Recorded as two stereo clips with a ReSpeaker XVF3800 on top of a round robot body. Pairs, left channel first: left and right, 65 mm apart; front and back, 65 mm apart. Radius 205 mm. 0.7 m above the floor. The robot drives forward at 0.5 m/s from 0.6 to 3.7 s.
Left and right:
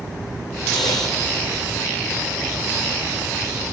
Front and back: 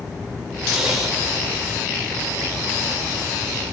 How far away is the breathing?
About 0.6 m.